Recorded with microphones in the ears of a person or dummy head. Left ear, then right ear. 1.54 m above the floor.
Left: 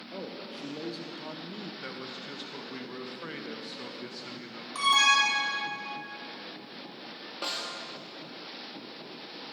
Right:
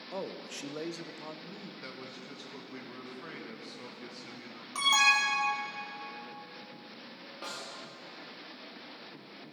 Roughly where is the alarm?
Right.